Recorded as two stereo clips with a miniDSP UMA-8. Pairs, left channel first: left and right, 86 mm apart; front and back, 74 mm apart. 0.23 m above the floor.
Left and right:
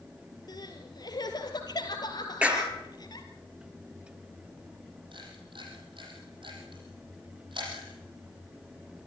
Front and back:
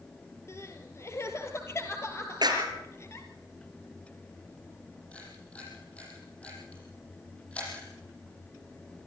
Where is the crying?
50° left, 2 m.